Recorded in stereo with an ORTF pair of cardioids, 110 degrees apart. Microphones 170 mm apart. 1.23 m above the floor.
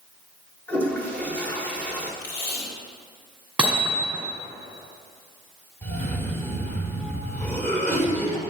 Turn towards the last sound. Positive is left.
turn(degrees=15)